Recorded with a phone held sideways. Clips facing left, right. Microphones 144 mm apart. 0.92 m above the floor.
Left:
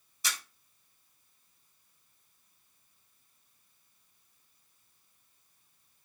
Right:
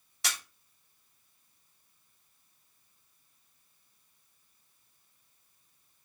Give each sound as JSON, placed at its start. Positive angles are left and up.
{"t": 0.2, "sound": "a camera shutter", "side_deg": -75, "distance_m": 2.5}